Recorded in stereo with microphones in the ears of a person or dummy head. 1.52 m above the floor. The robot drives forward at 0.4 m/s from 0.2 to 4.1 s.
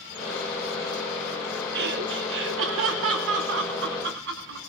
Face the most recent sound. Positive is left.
turn(degrees=-65)  # may be behind; listen again after turning